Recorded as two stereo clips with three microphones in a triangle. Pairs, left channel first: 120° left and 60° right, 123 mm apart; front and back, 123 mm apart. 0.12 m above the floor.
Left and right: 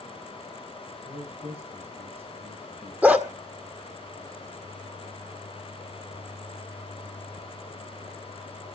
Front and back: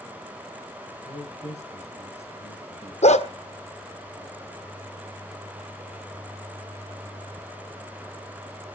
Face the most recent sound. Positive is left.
turn(degrees=15)